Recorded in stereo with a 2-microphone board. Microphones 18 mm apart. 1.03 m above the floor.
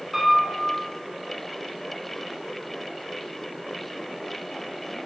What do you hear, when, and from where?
0.1 s a piano: centre (ahead or behind), 1.5 m